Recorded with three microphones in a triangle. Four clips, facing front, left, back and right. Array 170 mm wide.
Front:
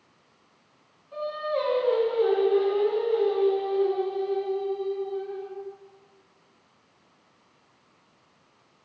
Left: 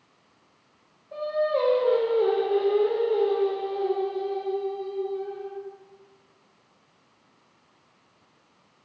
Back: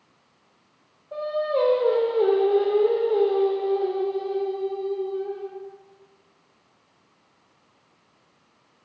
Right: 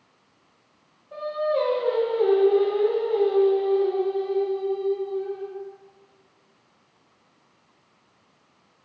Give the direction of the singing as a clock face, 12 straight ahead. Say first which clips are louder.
Even, back 4 dB; 6 o'clock.